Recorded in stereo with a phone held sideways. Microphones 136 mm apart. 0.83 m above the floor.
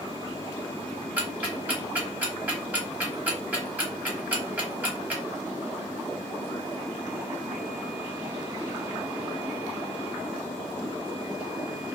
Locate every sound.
1.2 s ticking: 10° right (ahead or behind), 1.0 m